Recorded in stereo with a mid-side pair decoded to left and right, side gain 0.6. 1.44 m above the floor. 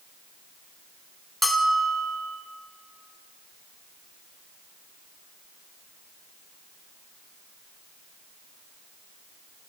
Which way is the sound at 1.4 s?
5° left.